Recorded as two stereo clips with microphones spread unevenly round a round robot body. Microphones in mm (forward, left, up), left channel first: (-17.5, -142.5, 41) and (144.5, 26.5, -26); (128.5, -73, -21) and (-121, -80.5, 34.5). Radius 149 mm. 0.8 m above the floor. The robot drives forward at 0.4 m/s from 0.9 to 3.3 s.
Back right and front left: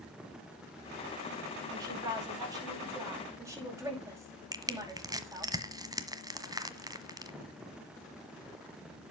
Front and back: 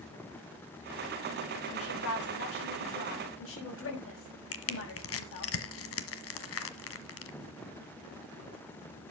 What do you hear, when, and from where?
1.7 s a woman speaking: 25° right, 6.5 m; by 5.5 s 30° right, 6 m
4.5 s crushing: 35° right, 1.5 m